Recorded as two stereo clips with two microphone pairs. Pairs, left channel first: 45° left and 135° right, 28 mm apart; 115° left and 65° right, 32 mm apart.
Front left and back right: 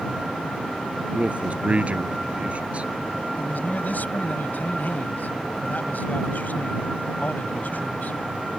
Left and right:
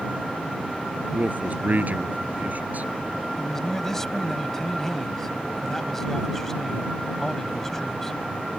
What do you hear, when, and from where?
1.1 s a man speaking: 95° right
3.4 s a man speaking: 40° left